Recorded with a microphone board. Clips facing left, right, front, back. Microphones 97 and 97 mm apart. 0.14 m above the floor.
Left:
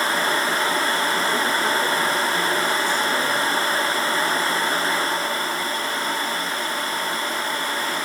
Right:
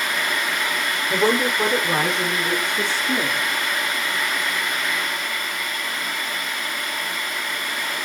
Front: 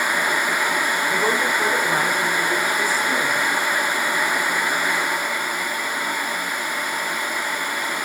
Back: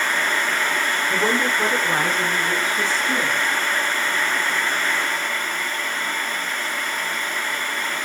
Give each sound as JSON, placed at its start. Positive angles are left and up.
{"t": 1.1, "sound": "a woman speaking", "azimuth_deg": -110, "distance_m": 8.5}